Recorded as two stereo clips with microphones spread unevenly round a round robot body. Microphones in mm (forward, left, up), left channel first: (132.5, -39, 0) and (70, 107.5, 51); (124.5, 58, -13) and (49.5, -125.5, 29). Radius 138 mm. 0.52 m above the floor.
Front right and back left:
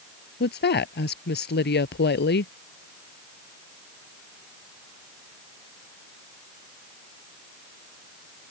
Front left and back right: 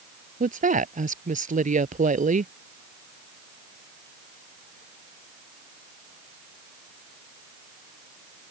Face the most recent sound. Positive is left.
turn(degrees=-65)